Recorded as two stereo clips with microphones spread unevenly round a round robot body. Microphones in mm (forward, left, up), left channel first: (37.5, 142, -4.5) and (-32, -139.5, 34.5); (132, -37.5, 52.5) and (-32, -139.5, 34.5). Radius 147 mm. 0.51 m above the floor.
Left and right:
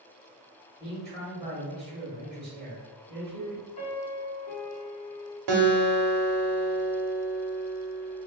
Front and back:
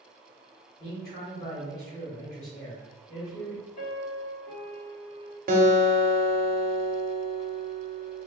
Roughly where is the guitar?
Right.